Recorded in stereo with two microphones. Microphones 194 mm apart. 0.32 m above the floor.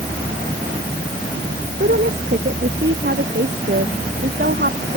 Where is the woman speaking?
60° right (ahead or behind).